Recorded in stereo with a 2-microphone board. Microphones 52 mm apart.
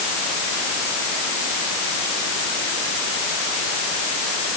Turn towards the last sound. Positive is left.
No sound to turn to.